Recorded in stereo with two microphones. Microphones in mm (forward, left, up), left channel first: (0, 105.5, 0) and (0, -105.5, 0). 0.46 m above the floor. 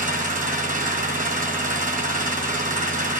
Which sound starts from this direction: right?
An engine running, at 0.0 s.